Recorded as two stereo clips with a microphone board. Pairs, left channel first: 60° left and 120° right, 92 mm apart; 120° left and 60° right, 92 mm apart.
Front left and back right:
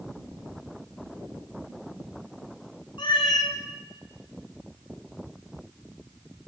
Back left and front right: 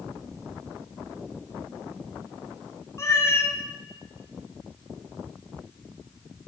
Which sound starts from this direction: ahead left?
A cat meowing, at 3.0 s.